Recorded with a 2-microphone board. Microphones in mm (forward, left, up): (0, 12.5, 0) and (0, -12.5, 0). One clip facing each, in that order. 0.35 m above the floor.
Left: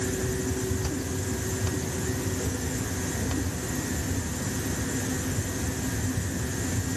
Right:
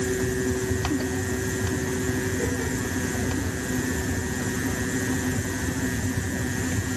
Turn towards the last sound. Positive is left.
No sound to turn to.